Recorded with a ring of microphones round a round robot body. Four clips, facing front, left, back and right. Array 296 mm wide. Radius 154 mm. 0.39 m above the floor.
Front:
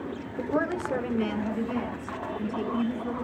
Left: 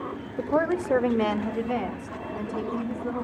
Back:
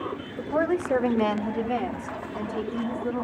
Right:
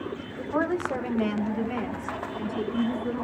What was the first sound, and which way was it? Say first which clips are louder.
A woman speaking: left 3 dB, back 3 dB; 90° left.